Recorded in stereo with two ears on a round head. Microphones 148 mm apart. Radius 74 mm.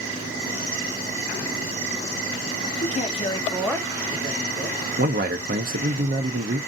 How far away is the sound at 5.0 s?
About 0.6 m.